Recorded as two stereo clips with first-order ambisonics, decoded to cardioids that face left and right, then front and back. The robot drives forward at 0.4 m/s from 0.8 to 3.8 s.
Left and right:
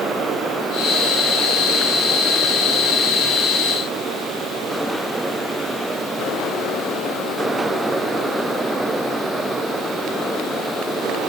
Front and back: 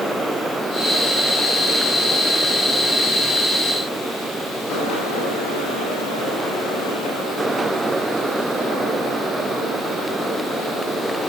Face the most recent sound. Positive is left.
No sound to turn to.